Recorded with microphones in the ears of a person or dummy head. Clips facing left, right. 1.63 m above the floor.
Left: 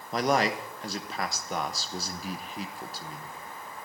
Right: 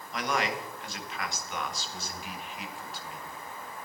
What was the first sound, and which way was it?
A man speaking, 35° left (ahead or behind).